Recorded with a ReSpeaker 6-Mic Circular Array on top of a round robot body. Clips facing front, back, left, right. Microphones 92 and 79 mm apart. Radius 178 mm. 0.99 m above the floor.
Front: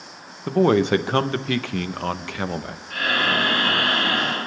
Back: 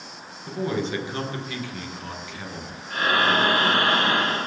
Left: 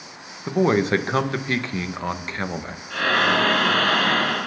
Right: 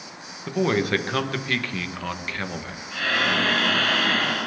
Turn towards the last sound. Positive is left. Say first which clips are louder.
# back 2 dB, left 4 dB
turn(degrees=120)